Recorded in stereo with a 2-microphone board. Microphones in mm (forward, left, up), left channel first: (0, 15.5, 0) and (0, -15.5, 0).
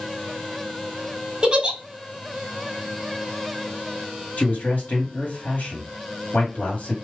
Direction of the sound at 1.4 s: 25° right (ahead or behind).